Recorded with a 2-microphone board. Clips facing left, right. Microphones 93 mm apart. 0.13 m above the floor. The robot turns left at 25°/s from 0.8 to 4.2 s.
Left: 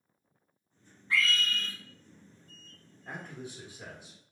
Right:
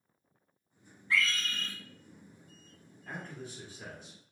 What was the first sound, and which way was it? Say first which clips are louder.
A scream: left 2 dB; 25° left (ahead or behind).